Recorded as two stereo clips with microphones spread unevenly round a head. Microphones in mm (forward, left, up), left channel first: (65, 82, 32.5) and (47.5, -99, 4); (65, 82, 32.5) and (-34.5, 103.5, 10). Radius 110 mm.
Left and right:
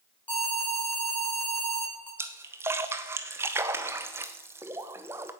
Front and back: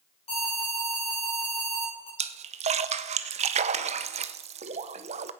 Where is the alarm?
5° left, 6.5 m.